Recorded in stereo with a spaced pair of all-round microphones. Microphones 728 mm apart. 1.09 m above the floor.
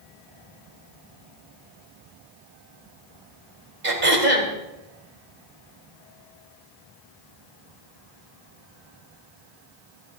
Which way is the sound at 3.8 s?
70° right (ahead or behind).